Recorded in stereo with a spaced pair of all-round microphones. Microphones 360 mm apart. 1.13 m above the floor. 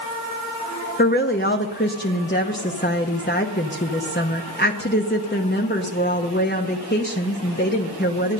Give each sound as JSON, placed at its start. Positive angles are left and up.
{"t": 1.0, "sound": "a woman speaking", "side_deg": 30, "distance_m": 0.9}